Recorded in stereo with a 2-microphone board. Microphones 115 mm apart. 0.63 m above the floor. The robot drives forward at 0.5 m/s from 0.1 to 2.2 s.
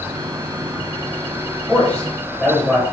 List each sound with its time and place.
1.7 s a man speaking: 15° left (ahead or behind), 2.5 m